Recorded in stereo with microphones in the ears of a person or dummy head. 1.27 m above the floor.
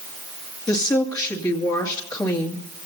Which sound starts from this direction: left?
A woman speaking, at 0.7 s.